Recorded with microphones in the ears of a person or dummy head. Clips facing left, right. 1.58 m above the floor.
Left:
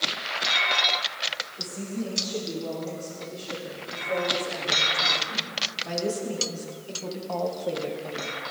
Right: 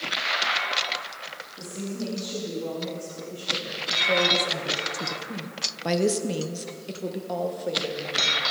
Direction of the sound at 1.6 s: 40° right (ahead or behind).